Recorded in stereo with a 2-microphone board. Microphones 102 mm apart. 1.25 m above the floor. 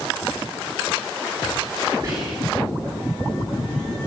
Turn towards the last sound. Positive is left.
turn(degrees=-30)  # may be behind; listen again after turning